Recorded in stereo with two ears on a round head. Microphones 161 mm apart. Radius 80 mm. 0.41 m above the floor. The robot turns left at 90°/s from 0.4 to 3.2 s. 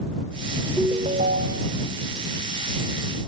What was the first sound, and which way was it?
A ringtone, straight ahead.